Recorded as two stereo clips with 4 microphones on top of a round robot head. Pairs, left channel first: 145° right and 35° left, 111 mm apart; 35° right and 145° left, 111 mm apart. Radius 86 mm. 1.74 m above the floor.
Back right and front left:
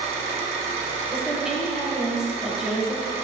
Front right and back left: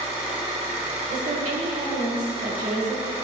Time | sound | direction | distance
0.0 | an engine running | 70° left | 0.7 m
1.1 | a woman speaking | 125° left | 1.4 m